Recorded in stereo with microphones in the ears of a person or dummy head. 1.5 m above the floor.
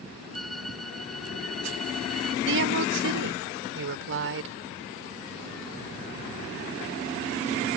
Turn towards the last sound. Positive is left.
turn(degrees=-75)  # may be behind; listen again after turning